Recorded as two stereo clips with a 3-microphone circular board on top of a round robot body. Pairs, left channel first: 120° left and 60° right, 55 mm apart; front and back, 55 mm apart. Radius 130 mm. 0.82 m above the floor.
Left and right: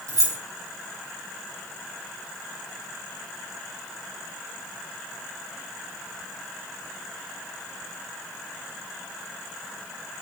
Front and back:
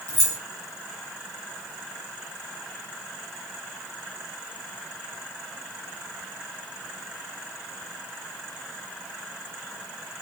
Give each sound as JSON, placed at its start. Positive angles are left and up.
{"t": 0.1, "sound": "keys jangling", "azimuth_deg": -40, "distance_m": 1.9}